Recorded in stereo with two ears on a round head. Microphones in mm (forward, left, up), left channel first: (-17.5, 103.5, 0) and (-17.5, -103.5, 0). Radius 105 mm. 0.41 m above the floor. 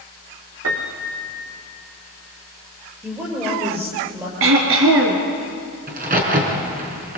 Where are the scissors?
I don't hear scissors.